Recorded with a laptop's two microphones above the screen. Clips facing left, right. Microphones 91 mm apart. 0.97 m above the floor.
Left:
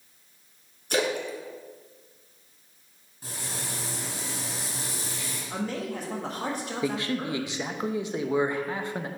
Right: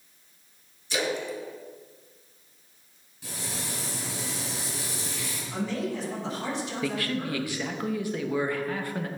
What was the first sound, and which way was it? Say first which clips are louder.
A splash: left 2 dB; 55° left (ahead or behind).